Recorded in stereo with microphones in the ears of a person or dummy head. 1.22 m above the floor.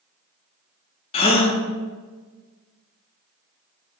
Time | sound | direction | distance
1.1 | a gasp | 25° left (ahead or behind) | 0.5 m